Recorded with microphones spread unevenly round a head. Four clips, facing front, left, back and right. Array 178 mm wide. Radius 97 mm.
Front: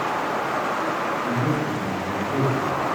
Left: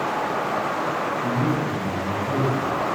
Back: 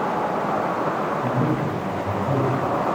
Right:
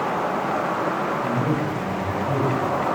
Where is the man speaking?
Straight behind, 6 m.